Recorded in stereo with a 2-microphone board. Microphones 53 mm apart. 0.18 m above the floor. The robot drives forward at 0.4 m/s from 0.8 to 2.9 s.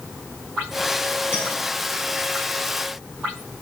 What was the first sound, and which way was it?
A clink, 35° left (ahead or behind).